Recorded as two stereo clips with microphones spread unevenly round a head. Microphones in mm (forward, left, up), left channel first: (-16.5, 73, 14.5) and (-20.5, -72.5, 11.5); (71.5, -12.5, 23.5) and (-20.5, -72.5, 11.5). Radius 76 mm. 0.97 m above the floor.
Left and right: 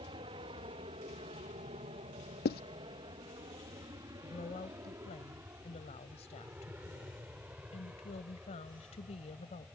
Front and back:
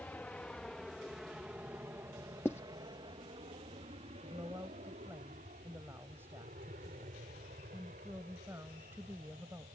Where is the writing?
110° left.